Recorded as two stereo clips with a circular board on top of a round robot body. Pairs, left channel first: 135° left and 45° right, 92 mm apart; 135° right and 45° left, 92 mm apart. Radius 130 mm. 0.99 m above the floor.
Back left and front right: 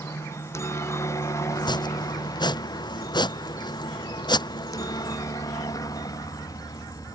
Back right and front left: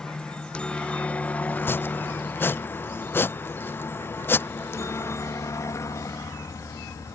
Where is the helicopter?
150° left; by 7.2 s 175° left.